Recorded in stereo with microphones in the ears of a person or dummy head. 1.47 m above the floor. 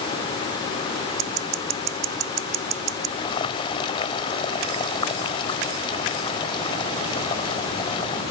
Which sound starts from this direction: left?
Boiling, at 3.2 s.